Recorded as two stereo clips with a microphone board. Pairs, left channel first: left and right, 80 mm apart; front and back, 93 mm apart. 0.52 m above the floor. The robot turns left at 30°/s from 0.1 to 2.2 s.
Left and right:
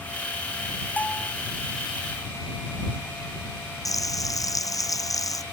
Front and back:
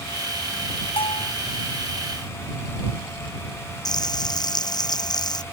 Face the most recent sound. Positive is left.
turn(degrees=45)